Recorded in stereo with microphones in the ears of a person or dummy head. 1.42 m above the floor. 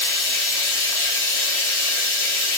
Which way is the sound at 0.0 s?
15° left (ahead or behind).